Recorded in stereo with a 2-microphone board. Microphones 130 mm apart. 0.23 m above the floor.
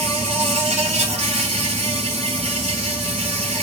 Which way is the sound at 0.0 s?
55° right (ahead or behind).